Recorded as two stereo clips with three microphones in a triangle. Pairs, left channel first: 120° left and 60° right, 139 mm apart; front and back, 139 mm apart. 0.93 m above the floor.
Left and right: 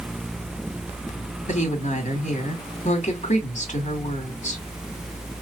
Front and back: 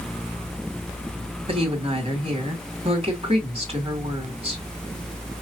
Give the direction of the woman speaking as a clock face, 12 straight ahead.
7 o'clock.